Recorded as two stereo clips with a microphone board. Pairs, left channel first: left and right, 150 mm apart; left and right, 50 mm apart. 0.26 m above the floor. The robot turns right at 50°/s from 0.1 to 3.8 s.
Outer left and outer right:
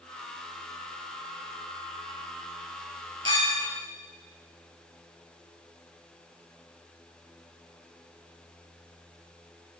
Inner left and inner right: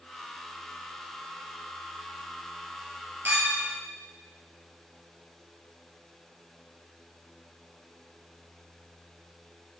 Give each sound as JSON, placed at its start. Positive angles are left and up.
{"t": 3.2, "sound": "a clink", "side_deg": -35, "distance_m": 3.0}